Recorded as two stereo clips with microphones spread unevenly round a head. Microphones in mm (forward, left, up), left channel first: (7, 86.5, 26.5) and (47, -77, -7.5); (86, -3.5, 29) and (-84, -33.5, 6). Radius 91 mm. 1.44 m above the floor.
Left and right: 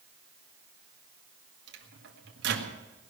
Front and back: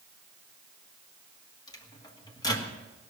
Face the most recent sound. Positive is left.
turn(degrees=-60)